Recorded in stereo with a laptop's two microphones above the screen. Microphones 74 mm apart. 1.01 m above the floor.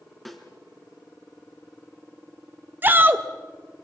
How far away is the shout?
About 0.9 m.